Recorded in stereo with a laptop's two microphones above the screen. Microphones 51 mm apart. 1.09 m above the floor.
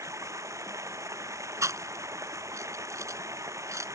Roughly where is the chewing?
Right.